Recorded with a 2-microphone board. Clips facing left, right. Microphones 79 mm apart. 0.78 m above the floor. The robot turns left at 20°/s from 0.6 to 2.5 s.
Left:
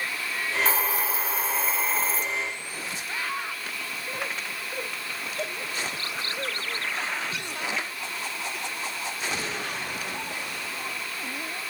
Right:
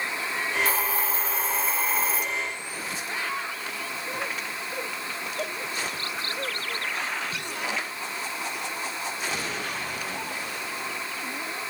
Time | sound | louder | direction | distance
0.7 | a hiss | even | 25° left | 3 m